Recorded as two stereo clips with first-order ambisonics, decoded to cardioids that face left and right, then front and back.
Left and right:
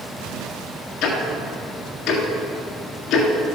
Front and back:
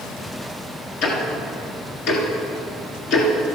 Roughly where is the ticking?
Ahead left.